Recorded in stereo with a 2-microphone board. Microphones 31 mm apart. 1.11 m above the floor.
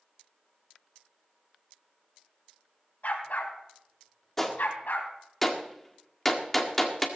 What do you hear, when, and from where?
3.0 s a dog barking: 60° left (ahead or behind), 3 m; by 5.1 s 80° left, 3.5 m
4.4 s a gunshot: 10° left (ahead or behind), 1.7 m